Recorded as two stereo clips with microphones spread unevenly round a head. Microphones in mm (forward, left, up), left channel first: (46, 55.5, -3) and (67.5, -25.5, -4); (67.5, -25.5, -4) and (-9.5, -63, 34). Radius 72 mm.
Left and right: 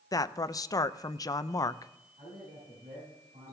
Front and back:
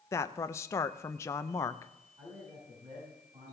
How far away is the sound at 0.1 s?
About 0.6 m.